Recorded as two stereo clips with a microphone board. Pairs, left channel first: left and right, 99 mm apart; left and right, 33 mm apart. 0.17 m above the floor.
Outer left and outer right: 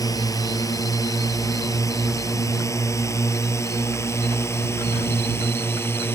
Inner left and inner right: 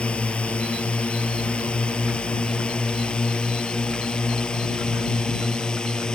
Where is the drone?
35° left (ahead or behind); by 6.2 s 25° left (ahead or behind).